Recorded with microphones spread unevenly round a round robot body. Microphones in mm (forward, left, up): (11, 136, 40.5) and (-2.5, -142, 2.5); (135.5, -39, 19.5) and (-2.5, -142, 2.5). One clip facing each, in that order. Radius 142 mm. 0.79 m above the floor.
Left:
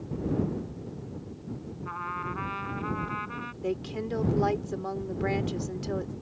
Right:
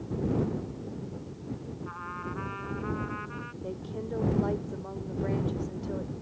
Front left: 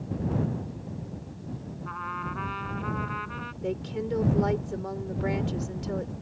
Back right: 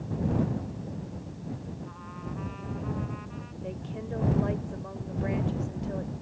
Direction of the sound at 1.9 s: 60° left.